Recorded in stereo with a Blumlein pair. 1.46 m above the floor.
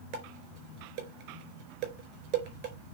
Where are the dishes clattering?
45° right, 4 m.